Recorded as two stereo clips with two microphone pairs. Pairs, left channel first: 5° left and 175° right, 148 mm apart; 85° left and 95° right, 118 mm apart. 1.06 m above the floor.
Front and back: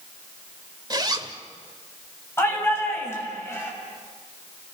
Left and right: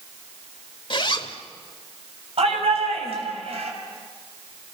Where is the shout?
70° right, 6 m.